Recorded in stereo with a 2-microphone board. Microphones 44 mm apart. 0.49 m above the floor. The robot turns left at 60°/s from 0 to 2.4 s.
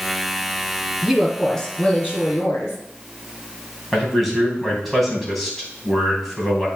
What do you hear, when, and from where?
1.0 s a woman speaking: 160° right, 4.5 m; by 2.8 s 115° left, 4.5 m
3.9 s a man speaking: centre (ahead or behind), 3 m